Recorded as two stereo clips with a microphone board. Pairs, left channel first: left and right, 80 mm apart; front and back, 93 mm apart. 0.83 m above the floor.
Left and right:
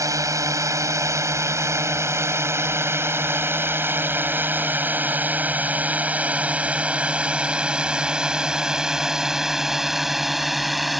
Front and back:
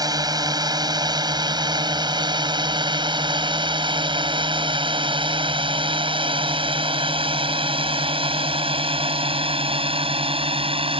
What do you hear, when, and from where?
0.0 s a drone: 135° right; by 11.0 s straight behind